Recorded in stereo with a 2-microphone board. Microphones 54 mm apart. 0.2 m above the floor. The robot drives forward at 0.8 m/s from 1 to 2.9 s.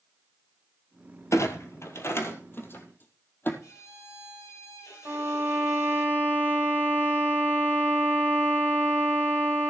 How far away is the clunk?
About 1.8 m.